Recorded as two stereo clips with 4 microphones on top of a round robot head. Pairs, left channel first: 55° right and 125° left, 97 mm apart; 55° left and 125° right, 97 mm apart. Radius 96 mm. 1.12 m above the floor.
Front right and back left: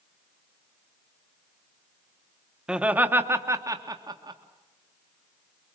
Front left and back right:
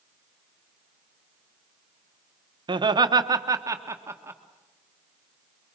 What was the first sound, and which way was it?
Laughter, 155° right.